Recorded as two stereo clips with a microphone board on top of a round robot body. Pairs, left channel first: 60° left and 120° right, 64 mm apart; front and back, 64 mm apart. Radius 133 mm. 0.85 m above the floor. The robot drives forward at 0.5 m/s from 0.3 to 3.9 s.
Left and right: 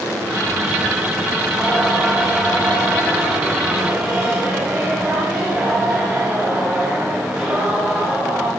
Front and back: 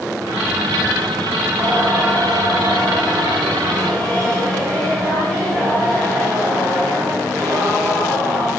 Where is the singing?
150° left, 1.5 m; by 8.5 s 165° left, 2.5 m.